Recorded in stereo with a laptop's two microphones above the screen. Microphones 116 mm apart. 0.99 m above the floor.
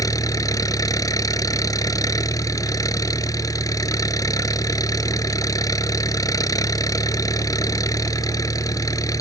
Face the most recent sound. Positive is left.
turn(degrees=30)  # may be behind; listen again after turning